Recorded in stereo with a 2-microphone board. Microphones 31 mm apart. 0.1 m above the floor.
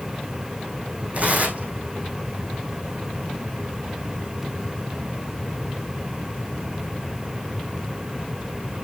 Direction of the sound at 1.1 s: 50° right (ahead or behind).